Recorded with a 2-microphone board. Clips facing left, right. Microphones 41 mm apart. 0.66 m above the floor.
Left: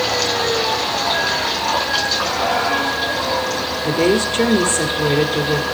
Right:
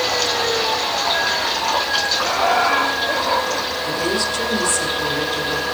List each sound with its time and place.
2.2 s laughter: 25° right (ahead or behind), 1.9 m; by 3.7 s 45° right (ahead or behind), 1.5 m
3.8 s a woman speaking: 50° left (ahead or behind), 1.3 m